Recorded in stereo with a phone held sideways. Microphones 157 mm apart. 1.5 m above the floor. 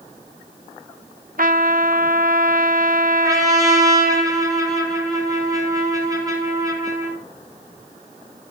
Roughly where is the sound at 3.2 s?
Right.